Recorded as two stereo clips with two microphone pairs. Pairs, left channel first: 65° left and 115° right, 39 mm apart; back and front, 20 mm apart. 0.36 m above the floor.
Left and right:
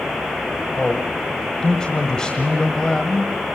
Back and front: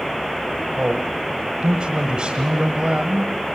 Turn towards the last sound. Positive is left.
turn(degrees=0)